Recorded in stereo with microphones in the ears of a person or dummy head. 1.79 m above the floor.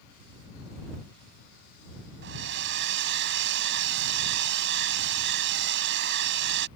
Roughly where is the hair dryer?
Right.